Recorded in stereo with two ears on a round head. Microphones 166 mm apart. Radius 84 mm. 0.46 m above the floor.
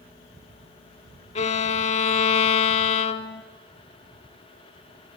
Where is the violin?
40° left (ahead or behind), 0.6 m.